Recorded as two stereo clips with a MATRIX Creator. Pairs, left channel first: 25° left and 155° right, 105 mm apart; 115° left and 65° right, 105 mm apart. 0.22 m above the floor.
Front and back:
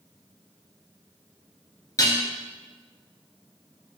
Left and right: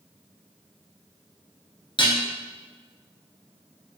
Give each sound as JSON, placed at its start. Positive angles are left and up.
{"t": 2.0, "sound": "dishes clattering", "azimuth_deg": 80, "distance_m": 2.0}